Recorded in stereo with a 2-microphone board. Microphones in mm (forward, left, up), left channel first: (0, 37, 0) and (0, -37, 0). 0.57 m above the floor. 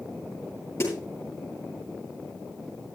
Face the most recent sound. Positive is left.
turn(degrees=40)  # may be behind; listen again after turning